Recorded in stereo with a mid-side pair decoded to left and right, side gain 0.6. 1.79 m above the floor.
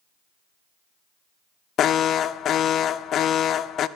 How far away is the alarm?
About 0.5 m.